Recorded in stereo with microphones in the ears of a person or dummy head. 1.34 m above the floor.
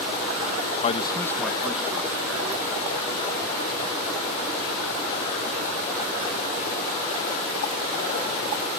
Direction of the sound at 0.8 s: 40° left (ahead or behind).